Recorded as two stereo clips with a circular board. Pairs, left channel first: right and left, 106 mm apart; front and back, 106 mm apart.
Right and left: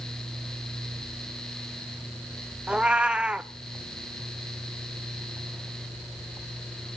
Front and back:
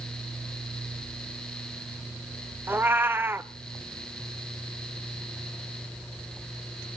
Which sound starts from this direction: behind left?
A cat meowing, at 2.7 s.